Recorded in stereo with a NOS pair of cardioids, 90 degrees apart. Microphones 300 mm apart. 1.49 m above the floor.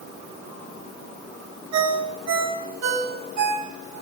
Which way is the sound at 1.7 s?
65° right.